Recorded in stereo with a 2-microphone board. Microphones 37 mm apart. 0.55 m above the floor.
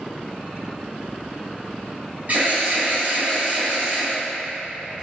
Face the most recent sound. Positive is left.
turn(degrees=-50)  # may be behind; listen again after turning